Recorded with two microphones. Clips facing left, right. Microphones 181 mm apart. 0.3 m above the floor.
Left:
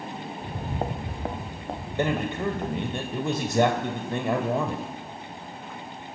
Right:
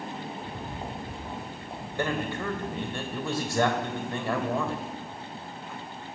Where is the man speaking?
20° left (ahead or behind), 1.1 m.